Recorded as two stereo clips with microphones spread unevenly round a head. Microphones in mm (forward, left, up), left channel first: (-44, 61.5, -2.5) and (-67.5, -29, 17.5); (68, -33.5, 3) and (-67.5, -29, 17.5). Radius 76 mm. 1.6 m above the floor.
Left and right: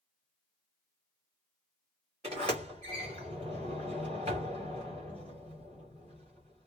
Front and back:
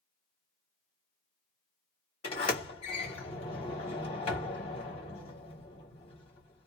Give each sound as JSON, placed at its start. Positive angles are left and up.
{"t": 2.2, "sound": "a sliding door", "azimuth_deg": -50, "distance_m": 3.0}